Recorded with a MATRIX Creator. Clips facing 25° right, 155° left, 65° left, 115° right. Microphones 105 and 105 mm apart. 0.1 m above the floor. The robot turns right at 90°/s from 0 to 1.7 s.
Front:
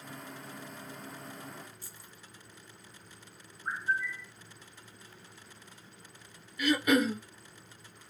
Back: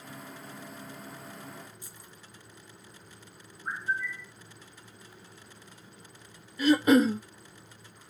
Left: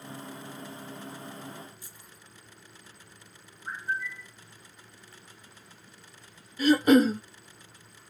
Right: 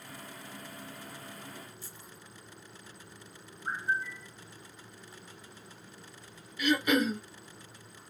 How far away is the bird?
About 0.6 m.